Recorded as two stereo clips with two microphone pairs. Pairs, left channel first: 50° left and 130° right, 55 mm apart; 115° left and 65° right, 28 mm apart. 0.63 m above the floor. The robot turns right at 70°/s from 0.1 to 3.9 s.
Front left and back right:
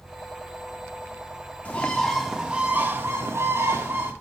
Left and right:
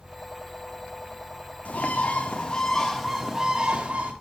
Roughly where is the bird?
Left.